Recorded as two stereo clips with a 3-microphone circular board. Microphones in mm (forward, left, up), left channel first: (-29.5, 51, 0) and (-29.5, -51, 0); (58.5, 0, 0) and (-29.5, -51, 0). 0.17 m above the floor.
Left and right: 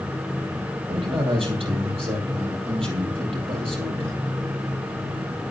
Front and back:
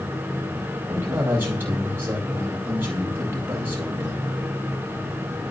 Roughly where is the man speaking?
Right.